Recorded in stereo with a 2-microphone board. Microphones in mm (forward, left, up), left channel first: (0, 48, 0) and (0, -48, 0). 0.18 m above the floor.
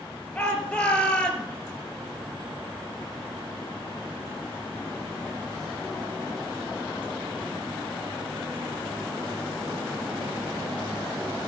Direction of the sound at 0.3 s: 15° left (ahead or behind).